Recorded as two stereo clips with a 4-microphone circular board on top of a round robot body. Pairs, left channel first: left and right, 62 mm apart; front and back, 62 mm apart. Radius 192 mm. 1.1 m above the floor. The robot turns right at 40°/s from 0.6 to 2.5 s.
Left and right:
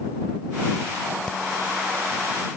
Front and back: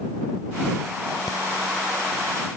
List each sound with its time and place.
1.3 s breathing: 10° left; by 1.4 s 15° left